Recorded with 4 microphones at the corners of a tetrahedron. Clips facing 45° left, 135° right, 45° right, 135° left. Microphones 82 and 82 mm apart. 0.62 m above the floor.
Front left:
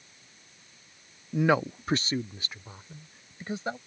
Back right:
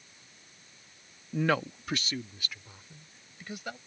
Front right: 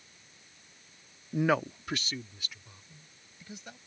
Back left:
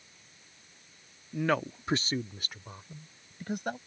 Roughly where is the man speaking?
Ahead right.